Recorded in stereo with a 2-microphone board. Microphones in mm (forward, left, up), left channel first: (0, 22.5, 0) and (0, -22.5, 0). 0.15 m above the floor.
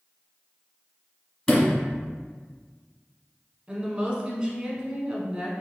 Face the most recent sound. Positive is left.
turn(degrees=-20)  # may be behind; listen again after turning